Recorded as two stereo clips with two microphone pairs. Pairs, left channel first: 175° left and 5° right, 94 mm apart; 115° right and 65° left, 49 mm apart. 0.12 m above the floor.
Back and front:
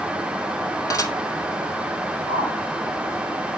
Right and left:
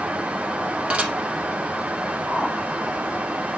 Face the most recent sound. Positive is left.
turn(degrees=155)